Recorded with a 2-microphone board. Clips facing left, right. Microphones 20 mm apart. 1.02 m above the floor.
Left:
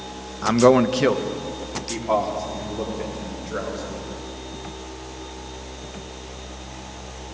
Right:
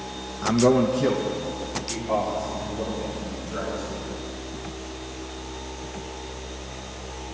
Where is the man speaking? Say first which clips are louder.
Left 4 dB; 20° left (ahead or behind), 0.5 m; by 4.0 s 80° left, 4 m.